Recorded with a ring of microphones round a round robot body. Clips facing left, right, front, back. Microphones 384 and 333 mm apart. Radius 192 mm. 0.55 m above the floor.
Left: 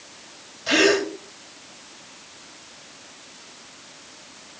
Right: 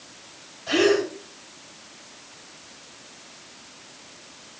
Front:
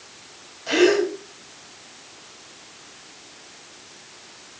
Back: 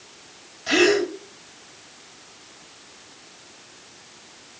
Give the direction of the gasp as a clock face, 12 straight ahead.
8 o'clock.